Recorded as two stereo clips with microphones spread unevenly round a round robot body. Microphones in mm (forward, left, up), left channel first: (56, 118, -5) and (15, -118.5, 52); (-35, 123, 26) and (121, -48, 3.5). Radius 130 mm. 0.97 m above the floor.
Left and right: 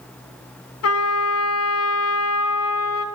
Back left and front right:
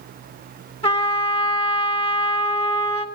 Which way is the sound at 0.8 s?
65° left.